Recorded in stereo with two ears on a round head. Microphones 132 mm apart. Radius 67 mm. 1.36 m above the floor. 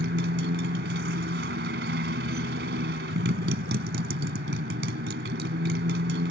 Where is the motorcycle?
75° right (ahead or behind).